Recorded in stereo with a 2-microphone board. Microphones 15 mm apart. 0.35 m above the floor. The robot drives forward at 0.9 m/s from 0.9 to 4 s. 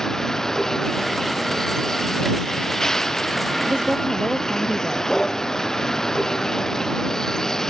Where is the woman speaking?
65° right (ahead or behind).